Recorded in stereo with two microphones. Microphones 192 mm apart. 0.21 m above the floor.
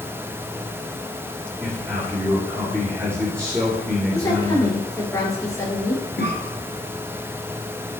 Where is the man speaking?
15° right (ahead or behind), 2.5 m.